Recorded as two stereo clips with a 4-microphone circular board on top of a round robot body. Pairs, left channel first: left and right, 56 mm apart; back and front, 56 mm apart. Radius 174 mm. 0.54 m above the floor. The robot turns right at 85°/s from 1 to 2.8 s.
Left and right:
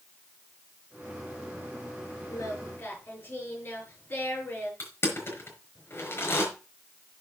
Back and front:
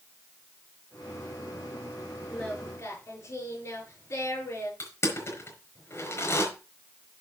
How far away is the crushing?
About 5 m.